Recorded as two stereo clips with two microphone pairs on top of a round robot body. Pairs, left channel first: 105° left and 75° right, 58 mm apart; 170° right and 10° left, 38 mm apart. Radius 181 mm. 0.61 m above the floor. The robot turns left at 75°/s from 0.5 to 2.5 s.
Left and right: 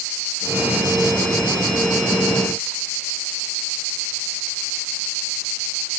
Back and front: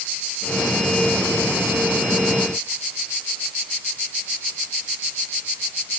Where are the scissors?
I don't hear scissors.